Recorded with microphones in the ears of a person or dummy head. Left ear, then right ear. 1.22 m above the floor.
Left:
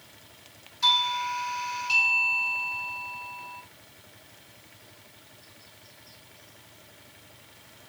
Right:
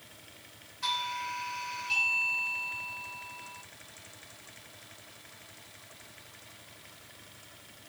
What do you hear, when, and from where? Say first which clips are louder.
0.8 s a doorbell: left 9 dB; 30° left (ahead or behind), 1.5 m